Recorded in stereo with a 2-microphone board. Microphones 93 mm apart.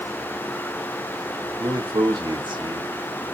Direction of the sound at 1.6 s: 60° right (ahead or behind).